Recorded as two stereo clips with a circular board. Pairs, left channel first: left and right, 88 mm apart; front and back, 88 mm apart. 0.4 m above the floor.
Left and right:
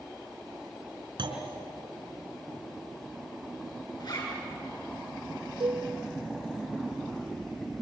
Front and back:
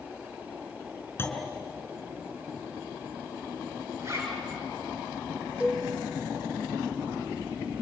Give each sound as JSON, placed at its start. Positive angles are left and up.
{"t": 1.2, "sound": "a clunk", "azimuth_deg": -65, "distance_m": 4.0}
{"t": 4.0, "sound": "a zipper", "azimuth_deg": 120, "distance_m": 6.0}
{"t": 5.6, "sound": "a cowbell", "azimuth_deg": -105, "distance_m": 4.5}